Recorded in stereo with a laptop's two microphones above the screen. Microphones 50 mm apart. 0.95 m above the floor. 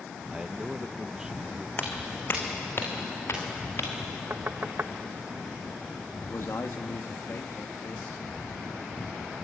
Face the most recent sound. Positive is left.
turn(degrees=65)  # may be behind; listen again after turning